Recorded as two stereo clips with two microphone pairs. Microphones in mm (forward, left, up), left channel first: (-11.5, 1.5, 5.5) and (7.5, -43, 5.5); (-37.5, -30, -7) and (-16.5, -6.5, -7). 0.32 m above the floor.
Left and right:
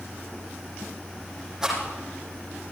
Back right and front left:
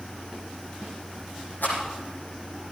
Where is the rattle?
145° right, 7.5 m.